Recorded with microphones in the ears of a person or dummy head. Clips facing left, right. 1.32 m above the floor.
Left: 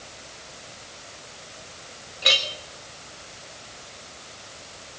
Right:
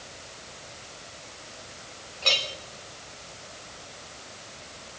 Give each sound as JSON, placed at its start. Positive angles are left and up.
{"t": 2.2, "sound": "a clink", "side_deg": 20, "distance_m": 1.7}